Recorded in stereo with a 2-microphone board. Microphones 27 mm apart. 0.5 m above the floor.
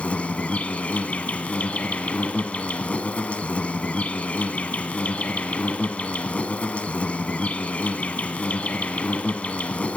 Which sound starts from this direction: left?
An insect, at 0.0 s.